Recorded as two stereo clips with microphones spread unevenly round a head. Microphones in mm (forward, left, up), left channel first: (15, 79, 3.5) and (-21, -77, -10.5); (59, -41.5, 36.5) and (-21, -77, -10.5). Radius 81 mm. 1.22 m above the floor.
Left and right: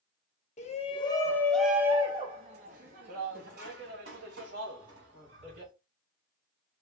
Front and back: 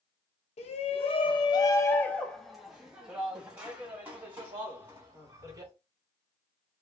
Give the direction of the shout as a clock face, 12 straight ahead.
11 o'clock.